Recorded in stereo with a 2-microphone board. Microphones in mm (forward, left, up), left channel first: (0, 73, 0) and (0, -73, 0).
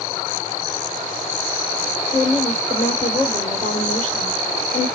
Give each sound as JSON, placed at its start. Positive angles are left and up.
{"t": 2.1, "sound": "a woman speaking", "side_deg": 65, "distance_m": 2.5}